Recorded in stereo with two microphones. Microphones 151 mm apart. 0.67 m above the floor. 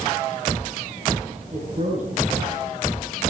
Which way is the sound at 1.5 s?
60° right (ahead or behind).